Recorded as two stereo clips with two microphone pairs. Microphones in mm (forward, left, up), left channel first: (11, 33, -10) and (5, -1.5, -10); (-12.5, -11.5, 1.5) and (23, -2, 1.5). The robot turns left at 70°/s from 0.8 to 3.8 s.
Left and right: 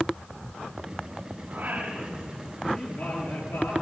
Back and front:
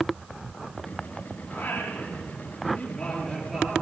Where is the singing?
125° right, 6.5 m; by 3.7 s 75° left, 6.5 m.